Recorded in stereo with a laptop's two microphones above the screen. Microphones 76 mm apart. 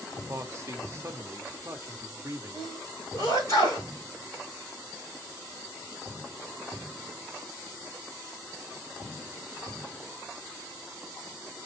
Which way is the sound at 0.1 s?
35° right (ahead or behind).